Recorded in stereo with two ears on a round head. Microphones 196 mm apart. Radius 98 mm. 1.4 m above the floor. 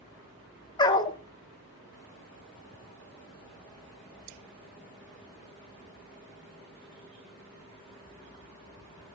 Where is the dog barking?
20° left (ahead or behind), 0.9 m.